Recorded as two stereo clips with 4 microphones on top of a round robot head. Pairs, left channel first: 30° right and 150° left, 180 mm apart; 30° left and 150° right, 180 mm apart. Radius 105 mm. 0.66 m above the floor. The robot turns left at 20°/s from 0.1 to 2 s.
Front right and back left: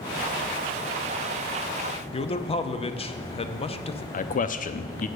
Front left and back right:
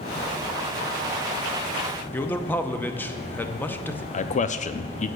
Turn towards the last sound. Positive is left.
turn(degrees=-5)